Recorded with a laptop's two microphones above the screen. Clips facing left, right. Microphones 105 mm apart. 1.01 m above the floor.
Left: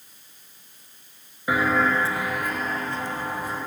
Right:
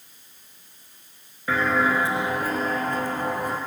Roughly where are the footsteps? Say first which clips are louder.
Even; centre.